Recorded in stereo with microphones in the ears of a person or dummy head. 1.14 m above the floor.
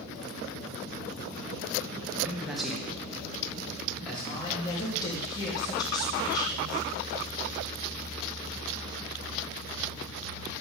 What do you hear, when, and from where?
2.2 s a man speaking: 5° right (ahead or behind), 0.9 m; by 4.8 s 5° left (ahead or behind), 3 m
4.2 s a woman speaking: 20° left (ahead or behind), 2.0 m